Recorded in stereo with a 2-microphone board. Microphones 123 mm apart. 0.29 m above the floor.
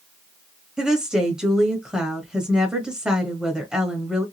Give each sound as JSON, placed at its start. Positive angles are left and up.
{"t": 0.8, "sound": "a woman speaking", "side_deg": -5, "distance_m": 1.3}